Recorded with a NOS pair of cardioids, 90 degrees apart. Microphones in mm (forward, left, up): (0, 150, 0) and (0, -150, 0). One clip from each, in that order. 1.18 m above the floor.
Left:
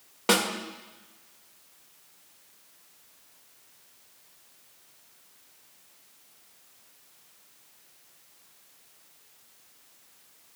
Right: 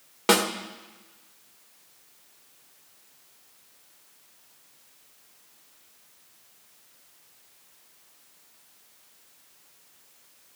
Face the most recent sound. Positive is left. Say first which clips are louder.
# right 2 dB
turn(degrees=-20)